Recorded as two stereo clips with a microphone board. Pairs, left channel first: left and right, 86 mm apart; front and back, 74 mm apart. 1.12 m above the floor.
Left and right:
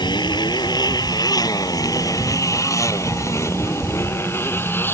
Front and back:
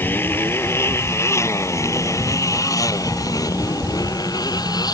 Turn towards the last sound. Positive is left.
turn(degrees=25)